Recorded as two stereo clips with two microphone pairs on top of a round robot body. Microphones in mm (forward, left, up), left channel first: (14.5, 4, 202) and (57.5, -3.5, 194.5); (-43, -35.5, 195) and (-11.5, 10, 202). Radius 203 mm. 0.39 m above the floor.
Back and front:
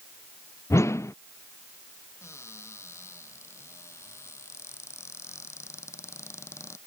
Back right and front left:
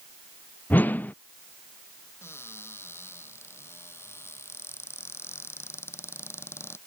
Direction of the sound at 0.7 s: Straight behind.